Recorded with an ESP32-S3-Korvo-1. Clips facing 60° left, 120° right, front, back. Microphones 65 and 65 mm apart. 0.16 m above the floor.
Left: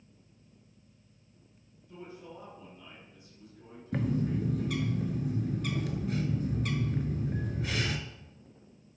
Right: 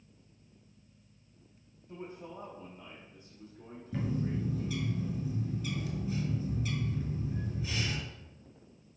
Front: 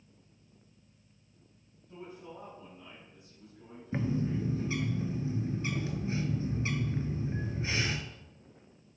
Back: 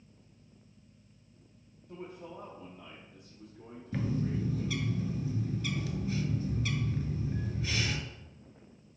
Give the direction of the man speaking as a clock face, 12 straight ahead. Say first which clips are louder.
Right 2 dB, back 2 dB; 6 o'clock.